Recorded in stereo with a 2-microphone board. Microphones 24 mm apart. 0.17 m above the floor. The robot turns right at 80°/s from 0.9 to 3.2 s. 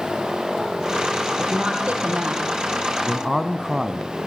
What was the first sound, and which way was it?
A woman speaking, 145° right.